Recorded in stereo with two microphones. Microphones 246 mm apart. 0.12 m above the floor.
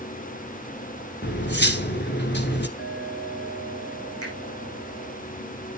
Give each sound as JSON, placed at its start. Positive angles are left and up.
{"t": 1.2, "sound": "cutlery clinking", "side_deg": 45, "distance_m": 1.0}
{"t": 2.8, "sound": "a clink", "side_deg": 75, "distance_m": 4.0}
{"t": 4.2, "sound": "a finger snap", "side_deg": 65, "distance_m": 5.0}